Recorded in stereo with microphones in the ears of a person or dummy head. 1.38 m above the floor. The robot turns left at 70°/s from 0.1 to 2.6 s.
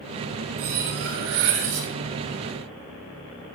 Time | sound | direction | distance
0.6 | cutlery clinking | 40° right | 2.5 m